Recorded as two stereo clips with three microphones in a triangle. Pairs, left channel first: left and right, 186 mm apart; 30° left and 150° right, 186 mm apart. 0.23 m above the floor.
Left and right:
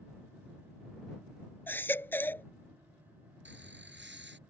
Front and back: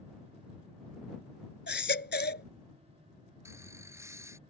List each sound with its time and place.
1.7 s a baby crying: 10° left
3.5 s laughter: 75° right